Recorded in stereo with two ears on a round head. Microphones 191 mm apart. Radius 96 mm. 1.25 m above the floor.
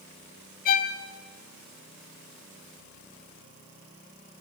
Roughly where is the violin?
Left.